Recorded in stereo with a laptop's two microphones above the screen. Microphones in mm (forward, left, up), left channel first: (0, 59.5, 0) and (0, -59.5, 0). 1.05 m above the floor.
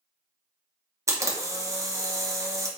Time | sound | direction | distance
1.1 | a camera shutter | 25° right (ahead or behind) | 0.8 m